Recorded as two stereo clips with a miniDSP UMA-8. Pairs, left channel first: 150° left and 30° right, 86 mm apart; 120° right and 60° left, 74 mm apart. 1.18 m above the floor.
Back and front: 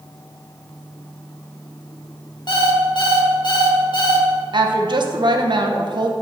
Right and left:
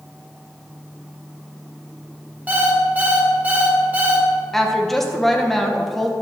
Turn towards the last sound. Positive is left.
turn(degrees=-35)